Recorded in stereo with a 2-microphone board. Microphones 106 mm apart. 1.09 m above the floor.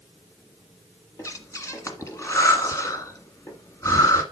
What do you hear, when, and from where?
1.2 s breathing: 30° left (ahead or behind), 1.6 m